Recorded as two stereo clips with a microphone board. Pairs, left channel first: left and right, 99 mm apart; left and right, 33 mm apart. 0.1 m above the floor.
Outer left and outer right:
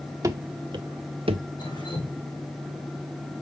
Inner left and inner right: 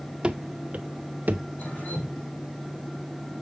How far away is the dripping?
About 5.5 m.